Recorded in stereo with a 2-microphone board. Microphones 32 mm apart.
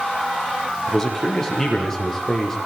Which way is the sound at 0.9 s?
15° left (ahead or behind).